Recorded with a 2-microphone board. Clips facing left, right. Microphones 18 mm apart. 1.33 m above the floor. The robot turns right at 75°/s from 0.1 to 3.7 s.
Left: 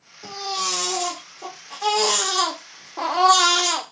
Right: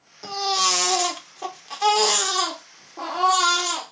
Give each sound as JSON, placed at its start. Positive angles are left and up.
{"t": 0.2, "sound": "a baby crying", "azimuth_deg": -135, "distance_m": 0.9}